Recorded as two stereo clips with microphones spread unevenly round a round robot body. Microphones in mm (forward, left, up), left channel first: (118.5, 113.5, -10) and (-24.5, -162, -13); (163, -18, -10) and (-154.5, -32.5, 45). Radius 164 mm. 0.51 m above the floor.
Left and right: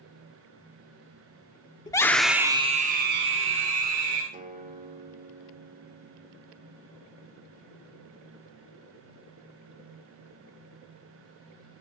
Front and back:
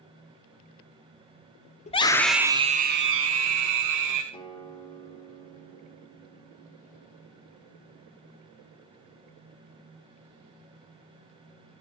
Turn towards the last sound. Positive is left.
turn(degrees=-60)